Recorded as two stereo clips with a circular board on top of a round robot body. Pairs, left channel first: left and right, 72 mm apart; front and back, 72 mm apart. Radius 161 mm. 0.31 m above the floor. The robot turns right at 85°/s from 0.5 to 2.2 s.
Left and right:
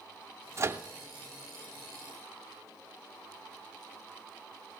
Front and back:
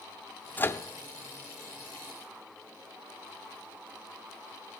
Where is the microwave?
60° right, 0.8 m; by 0.8 s 35° right, 0.8 m.